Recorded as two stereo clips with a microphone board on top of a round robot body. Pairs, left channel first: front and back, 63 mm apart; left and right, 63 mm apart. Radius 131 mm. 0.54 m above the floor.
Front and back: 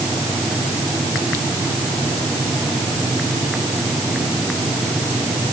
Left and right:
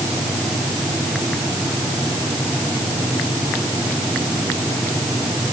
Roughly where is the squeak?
I don't hear a squeak.